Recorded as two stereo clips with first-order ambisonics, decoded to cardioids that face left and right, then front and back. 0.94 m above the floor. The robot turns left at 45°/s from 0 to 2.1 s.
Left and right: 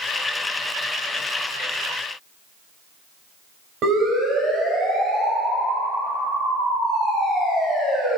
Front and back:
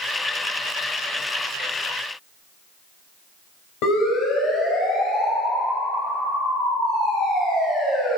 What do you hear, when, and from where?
3.8 s a siren: 30° right, 4 m